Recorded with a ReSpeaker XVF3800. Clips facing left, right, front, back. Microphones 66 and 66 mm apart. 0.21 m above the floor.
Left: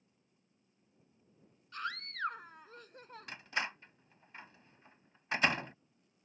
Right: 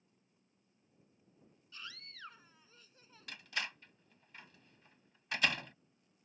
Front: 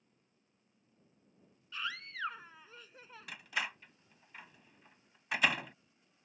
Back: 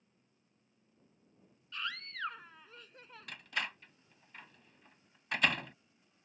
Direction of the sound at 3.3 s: 80° left.